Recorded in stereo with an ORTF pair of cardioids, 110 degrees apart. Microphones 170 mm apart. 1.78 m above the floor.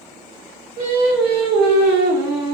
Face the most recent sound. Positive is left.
turn(degrees=-70)